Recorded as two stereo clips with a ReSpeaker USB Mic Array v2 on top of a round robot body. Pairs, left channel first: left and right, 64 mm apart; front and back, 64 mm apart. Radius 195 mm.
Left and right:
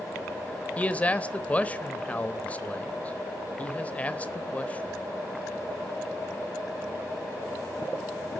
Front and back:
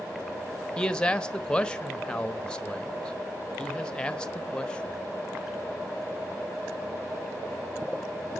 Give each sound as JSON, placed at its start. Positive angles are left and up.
{"t": 0.8, "sound": "a man speaking", "azimuth_deg": 55, "distance_m": 1.3}